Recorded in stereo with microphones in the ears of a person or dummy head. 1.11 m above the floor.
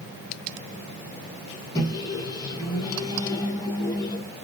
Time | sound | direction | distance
1.8 | a microwave | 20° left (ahead or behind) | 0.9 m